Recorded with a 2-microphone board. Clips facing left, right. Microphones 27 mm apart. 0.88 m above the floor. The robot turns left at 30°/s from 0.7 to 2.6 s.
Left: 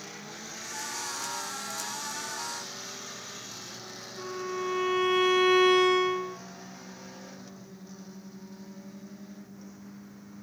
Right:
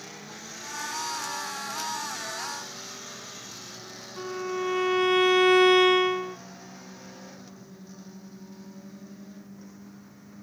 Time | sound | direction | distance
4.2 | a violin | 65° right (ahead or behind) | 0.8 m